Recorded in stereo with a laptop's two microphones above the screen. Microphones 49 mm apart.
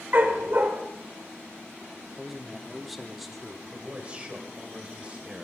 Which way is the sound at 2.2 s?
Centre (ahead or behind).